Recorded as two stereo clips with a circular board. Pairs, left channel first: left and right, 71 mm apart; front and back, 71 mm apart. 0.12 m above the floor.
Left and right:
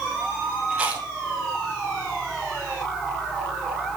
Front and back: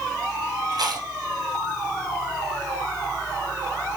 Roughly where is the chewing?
Behind.